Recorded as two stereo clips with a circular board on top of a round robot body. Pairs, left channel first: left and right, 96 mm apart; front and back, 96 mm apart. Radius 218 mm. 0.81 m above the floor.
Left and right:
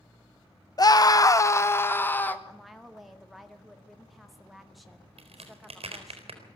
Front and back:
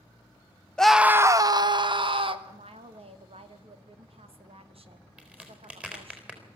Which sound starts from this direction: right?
A crack, at 5.2 s.